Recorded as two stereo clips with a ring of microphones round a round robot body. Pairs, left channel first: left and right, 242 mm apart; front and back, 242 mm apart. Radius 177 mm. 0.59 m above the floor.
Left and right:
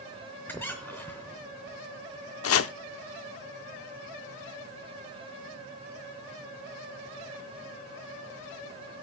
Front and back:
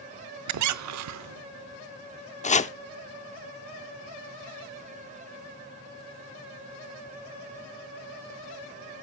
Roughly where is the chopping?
Ahead left.